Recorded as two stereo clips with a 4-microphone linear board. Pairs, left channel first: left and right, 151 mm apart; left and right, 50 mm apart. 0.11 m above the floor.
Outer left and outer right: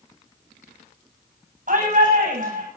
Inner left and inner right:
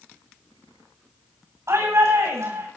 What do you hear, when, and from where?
1.7 s a shout: 65° right (ahead or behind), 9 m